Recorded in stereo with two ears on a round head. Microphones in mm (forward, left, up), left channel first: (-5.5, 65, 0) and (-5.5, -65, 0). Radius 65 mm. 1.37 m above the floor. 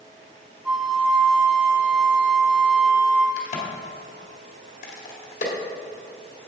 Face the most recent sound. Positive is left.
turn(degrees=50)  # may be behind; listen again after turning